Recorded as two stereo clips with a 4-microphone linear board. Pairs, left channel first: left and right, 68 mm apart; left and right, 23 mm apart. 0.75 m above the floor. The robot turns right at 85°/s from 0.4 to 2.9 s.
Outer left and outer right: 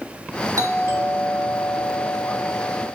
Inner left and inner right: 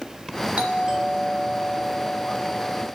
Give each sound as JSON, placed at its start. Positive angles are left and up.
{"t": 0.6, "sound": "a doorbell", "azimuth_deg": -70, "distance_m": 1.8}